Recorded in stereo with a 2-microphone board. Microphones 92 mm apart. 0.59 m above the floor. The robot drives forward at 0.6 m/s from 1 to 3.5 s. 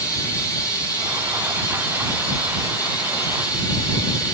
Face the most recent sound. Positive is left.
turn(degrees=45)  # may be behind; listen again after turning